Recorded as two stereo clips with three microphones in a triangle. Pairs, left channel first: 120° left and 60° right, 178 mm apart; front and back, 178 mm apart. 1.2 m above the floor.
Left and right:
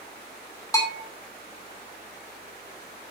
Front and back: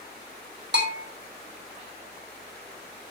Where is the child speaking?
No child speaking in this recording.